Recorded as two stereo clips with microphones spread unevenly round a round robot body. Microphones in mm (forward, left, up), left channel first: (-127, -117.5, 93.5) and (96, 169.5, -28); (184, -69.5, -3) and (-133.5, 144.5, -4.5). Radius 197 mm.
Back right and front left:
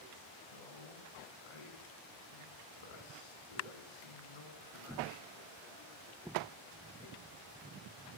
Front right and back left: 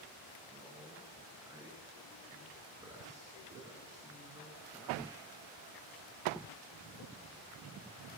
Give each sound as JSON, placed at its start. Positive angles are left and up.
{"t": 0.5, "sound": "a man speaking", "azimuth_deg": -135, "distance_m": 8.5}